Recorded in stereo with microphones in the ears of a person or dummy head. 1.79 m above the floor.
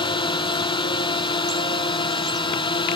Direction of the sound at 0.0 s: 25° left (ahead or behind).